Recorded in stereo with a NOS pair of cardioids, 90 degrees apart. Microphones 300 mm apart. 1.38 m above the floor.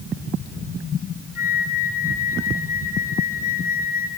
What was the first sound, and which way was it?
A flute, 30° left.